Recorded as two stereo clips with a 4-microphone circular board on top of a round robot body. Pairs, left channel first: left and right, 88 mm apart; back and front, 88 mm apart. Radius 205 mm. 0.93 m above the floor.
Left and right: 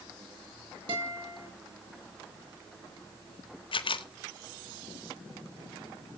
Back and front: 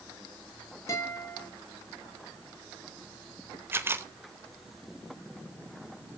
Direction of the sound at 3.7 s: 65° left.